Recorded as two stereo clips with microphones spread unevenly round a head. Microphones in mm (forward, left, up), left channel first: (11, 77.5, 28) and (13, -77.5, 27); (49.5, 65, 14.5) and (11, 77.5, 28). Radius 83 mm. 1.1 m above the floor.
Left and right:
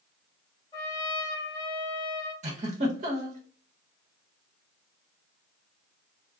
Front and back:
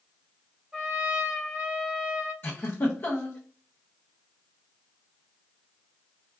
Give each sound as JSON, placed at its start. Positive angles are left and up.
{"t": 0.7, "sound": "a trumpet", "azimuth_deg": 140, "distance_m": 1.0}
{"t": 2.4, "sound": "a giggle", "azimuth_deg": -45, "distance_m": 1.0}